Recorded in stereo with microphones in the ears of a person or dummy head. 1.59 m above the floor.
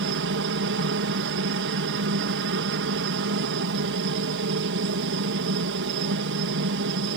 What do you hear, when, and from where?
0.0 s a helicopter: 55° right (ahead or behind)